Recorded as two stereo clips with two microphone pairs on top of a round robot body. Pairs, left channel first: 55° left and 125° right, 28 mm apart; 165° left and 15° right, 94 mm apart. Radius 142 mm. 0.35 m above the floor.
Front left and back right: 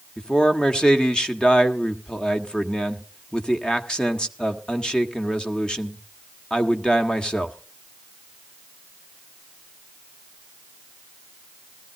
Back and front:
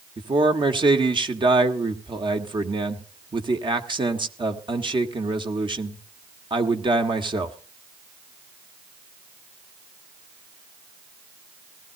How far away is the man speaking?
About 1.6 m.